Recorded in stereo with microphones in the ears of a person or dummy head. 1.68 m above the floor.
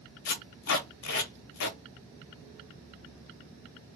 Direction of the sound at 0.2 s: 70° left (ahead or behind).